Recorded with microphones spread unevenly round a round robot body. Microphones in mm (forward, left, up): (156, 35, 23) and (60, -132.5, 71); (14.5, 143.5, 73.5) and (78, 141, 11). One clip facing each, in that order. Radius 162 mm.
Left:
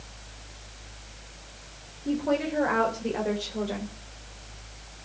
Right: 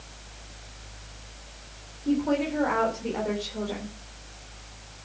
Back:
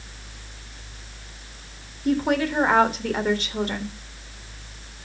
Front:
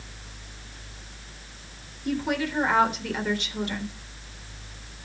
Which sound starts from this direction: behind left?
A woman speaking, at 2.0 s.